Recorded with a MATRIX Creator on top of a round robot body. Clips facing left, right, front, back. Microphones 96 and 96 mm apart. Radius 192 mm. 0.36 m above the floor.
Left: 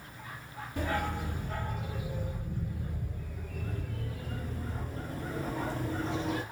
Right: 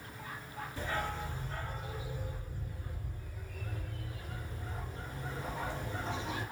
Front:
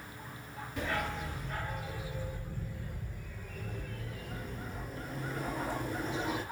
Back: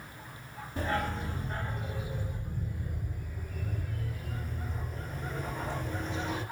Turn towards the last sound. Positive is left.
turn(degrees=80)